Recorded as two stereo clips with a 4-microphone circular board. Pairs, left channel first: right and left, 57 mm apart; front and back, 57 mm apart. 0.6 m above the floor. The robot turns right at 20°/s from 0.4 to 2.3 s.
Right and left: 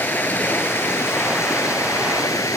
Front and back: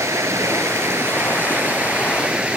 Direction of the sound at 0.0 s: 145° right.